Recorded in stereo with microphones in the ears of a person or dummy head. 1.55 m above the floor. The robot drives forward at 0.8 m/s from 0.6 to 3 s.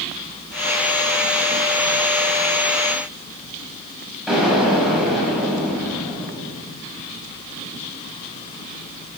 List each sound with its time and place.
4.3 s an explosion: centre (ahead or behind), 6 m